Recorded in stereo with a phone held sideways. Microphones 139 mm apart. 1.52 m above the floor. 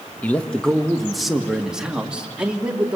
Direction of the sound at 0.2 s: 10° left (ahead or behind).